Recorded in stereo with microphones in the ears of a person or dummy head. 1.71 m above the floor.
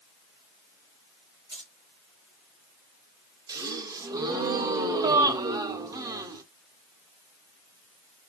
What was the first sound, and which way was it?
Keys jangling, 25° right (ahead or behind).